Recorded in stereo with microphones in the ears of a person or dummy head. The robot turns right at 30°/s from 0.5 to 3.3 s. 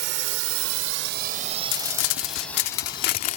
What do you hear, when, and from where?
0.0 s a drone: 60° right (ahead or behind); by 3.4 s 40° left (ahead or behind)
1.7 s crumpling: 85° left; by 3.4 s 130° left